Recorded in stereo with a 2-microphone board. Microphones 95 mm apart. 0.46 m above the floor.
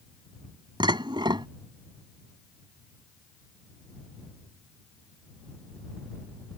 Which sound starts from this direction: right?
Dishes clattering, at 0.8 s.